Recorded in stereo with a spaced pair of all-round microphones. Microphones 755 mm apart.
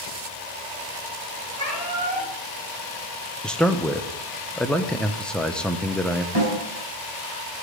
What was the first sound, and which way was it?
A cat meowing, 45° right (ahead or behind).